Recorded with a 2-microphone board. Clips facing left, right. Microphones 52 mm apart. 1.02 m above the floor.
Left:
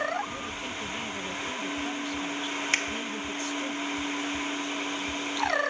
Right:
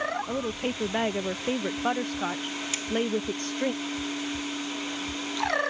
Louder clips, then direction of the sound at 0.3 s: Right 6 dB; 50° right (ahead or behind).